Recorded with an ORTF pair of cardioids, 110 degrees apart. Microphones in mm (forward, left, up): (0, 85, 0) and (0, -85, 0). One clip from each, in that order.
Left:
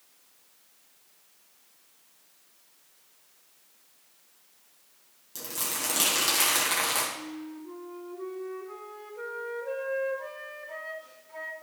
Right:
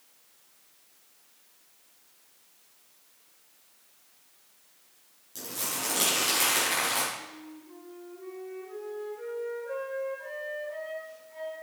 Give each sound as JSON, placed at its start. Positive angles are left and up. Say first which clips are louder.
{"t": 5.3, "sound": "crumpling", "louder": "left 1 dB", "azimuth_deg": 25, "distance_m": 4.0}
{"t": 7.2, "sound": "a flute", "louder": "left 4 dB", "azimuth_deg": 60, "distance_m": 2.0}